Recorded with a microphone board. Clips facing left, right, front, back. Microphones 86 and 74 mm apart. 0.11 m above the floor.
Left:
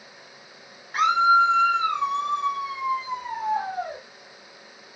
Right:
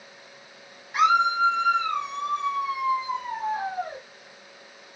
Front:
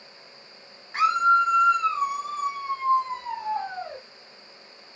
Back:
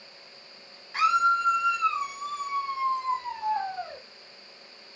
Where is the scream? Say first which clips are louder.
Left 2 dB, front 3 dB; 45° left, 2 m; by 4.0 s 30° left, 4.5 m.